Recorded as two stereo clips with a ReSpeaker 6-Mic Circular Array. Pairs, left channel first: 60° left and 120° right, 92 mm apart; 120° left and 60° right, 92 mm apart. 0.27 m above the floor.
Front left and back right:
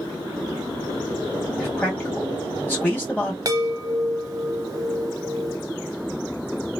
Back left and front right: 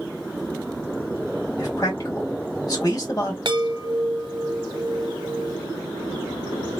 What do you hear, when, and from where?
1.6 s a man speaking: 120° left, 2 m
3.5 s a chime: 80° right, 0.7 m